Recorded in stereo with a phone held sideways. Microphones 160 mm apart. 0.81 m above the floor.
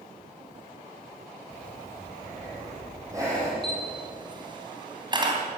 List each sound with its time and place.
1.5 s breathing: 20° right (ahead or behind), 6 m
3.6 s a camera shutter: 30° right (ahead or behind), 3 m